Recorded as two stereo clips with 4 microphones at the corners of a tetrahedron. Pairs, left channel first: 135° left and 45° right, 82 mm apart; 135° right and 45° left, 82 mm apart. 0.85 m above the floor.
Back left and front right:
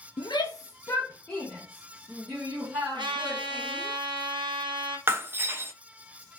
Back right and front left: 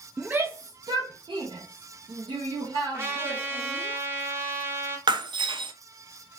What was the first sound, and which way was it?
A shout, 120° left.